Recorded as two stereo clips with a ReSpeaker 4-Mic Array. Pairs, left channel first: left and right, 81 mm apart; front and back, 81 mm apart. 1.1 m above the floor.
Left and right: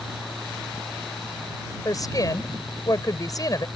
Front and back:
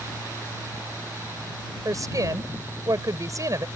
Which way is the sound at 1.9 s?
135° left.